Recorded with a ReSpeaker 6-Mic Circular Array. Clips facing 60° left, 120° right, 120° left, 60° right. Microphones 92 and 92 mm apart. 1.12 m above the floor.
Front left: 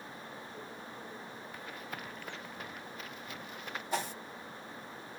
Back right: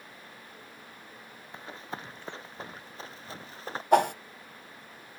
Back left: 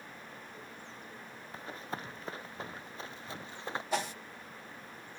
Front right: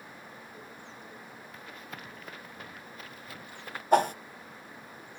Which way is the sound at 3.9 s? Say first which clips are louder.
Back right 15 dB, front right 12 dB; 95° right.